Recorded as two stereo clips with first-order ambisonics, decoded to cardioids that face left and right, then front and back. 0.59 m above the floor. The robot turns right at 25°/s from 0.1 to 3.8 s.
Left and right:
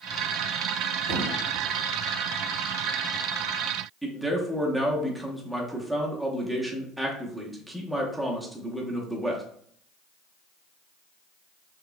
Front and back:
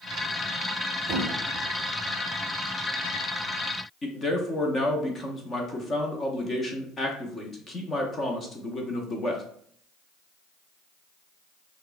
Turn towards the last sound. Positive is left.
turn(degrees=-10)